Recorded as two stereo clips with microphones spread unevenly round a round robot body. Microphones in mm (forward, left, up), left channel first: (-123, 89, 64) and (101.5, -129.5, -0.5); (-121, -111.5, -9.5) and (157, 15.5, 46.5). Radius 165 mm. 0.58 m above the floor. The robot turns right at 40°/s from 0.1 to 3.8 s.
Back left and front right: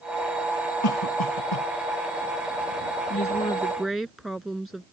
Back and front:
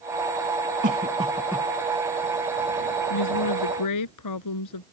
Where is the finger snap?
No finger snap in this recording.